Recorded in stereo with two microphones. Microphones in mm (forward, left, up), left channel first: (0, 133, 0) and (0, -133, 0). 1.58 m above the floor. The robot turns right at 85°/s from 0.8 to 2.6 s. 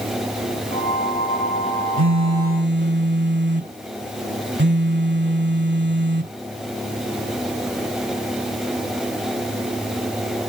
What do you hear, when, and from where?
2.0 s a phone buzzing: 95° right; by 6.3 s 40° right